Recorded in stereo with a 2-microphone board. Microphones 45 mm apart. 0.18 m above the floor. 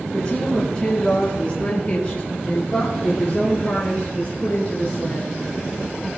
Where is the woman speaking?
20° left (ahead or behind), 5.5 m; by 5.3 s 45° left (ahead or behind), 3 m.